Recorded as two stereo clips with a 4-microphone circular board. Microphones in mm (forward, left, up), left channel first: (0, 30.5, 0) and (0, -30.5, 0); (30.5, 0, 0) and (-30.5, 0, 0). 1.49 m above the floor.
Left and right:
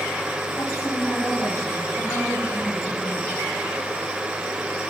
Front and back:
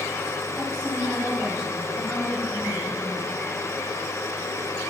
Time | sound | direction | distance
0.6 | a woman speaking | 110° left | 8 m